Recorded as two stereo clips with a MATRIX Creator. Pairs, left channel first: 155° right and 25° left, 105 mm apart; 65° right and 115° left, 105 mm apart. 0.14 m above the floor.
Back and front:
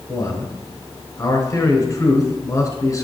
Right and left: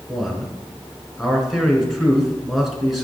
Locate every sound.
0.1 s a man speaking: 160° right, 1.3 m